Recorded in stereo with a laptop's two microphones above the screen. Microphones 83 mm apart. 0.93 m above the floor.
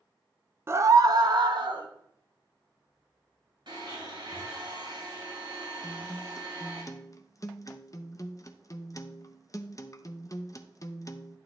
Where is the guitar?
40° left (ahead or behind), 0.5 m.